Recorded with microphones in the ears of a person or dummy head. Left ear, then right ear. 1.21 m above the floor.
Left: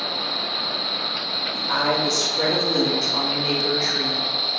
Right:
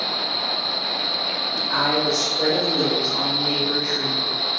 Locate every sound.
1.5 s a woman speaking: 50° left (ahead or behind), 3 m; by 4.3 s 80° left, 1.5 m